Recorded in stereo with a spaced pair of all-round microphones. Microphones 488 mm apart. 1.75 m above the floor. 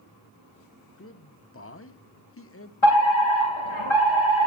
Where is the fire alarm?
80° left, 3.5 m.